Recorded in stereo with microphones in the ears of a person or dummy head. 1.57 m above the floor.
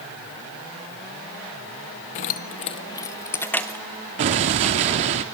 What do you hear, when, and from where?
2.1 s keys jangling: 35° left (ahead or behind), 0.6 m; by 5.1 s centre (ahead or behind), 1.8 m
4.2 s an explosion: 30° right (ahead or behind), 1.3 m